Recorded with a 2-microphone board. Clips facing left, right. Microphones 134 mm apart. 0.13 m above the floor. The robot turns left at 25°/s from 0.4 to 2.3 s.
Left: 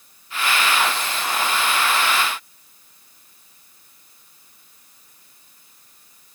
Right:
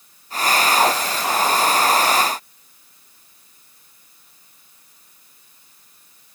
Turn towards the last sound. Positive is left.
No sound to turn to.